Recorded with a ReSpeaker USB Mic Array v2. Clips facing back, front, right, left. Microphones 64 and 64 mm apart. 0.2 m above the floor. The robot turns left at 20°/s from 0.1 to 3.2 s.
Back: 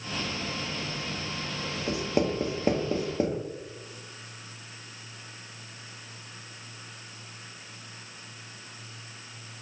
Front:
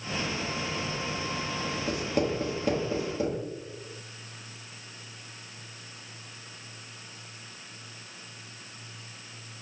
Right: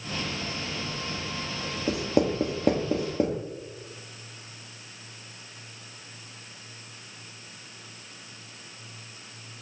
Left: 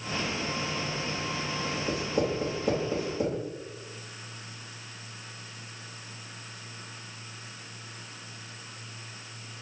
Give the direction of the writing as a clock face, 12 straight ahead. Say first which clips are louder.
Back 2 dB, right 5 dB; 3 o'clock.